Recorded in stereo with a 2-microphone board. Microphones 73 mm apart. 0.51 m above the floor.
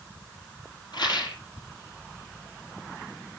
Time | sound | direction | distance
0.9 | a rattle | 90° left | 4 m